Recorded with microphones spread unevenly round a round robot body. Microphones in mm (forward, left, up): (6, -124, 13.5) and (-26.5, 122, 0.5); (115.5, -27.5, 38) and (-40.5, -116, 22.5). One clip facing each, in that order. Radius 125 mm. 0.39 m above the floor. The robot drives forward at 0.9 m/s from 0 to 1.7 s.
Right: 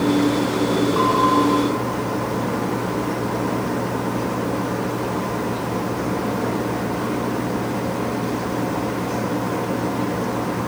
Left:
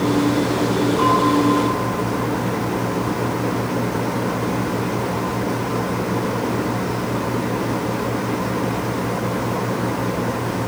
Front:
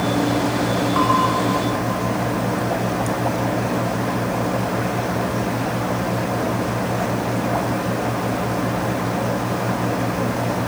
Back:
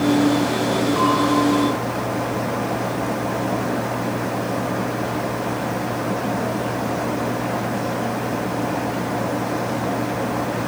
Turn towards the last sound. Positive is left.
turn(degrees=-90)